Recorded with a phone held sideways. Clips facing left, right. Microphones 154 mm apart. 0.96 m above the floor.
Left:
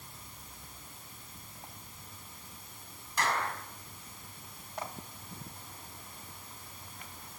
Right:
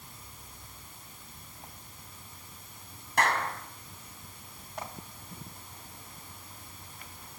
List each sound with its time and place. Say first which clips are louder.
3.2 s a clap: right 4 dB; 60° right (ahead or behind), 5 m